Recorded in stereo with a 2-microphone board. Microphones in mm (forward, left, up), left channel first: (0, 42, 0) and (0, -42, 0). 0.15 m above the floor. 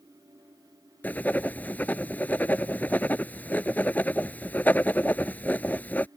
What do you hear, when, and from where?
1.0 s writing: 20° left (ahead or behind)